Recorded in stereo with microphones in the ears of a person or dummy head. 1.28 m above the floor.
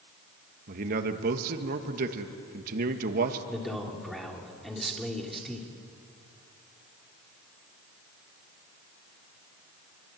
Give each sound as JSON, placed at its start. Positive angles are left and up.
{"t": 0.7, "sound": "a man speaking", "side_deg": -50, "distance_m": 1.8}
{"t": 3.5, "sound": "a man speaking", "side_deg": 0, "distance_m": 3.0}